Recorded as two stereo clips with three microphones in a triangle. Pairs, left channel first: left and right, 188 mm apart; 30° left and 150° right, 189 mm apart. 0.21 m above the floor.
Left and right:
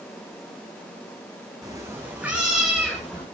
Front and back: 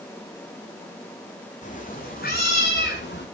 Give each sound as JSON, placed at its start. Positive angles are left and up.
{"t": 1.6, "sound": "a cat meowing", "azimuth_deg": -20, "distance_m": 4.0}